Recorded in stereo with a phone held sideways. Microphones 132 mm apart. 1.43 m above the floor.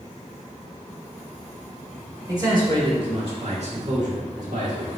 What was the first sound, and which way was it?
A man speaking, 25° right (ahead or behind).